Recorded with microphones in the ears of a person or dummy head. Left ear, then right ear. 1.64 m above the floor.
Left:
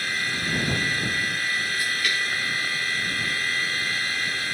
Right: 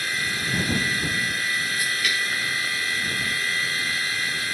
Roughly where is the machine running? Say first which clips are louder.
Even; centre.